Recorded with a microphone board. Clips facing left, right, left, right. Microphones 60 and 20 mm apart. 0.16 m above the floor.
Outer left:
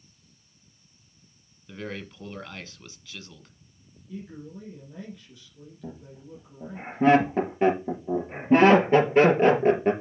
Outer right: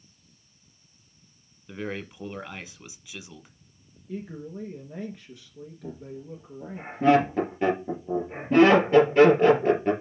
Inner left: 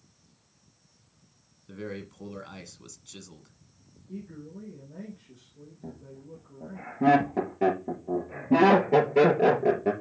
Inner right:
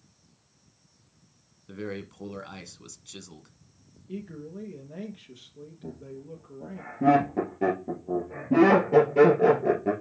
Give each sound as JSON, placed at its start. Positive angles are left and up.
{"t": 1.7, "sound": "a man speaking", "side_deg": -10, "distance_m": 1.2}
{"t": 4.1, "sound": "a man speaking", "side_deg": -45, "distance_m": 2.5}
{"t": 5.8, "sound": "laughter", "side_deg": 20, "distance_m": 3.5}